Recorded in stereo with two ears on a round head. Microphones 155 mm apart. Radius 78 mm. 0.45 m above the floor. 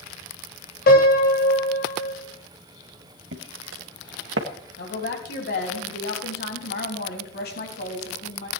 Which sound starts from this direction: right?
Footsteps, at 3.3 s.